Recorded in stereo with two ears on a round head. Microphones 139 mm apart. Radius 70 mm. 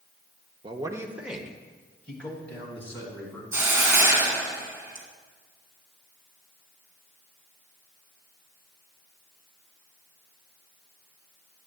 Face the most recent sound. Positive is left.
turn(degrees=-15)  # may be behind; listen again after turning